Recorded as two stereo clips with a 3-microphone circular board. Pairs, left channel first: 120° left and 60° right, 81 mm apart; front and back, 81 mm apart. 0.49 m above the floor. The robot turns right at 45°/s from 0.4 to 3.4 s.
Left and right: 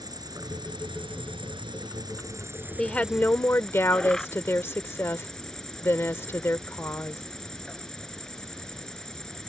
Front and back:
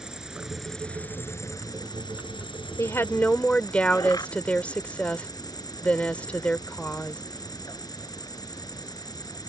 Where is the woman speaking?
40° left; by 7.2 s 70° left.